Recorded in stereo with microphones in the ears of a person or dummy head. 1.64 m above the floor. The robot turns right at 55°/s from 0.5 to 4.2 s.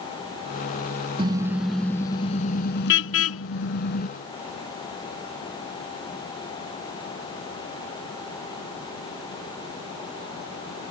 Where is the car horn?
25° right; by 4.1 s 135° left.